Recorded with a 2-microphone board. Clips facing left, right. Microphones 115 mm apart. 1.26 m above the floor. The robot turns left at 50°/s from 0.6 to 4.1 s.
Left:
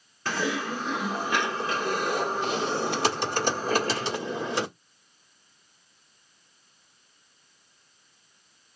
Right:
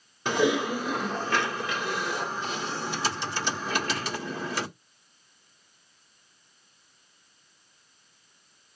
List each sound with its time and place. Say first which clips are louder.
0.2 s typing on a keyboard: right 5 dB; 160° right, 1.5 m; by 4.7 s 25° left, 1.5 m